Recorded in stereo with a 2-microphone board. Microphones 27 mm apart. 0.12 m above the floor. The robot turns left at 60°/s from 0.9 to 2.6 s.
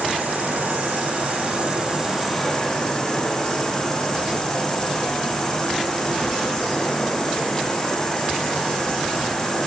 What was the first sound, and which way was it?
An insect, 95° right.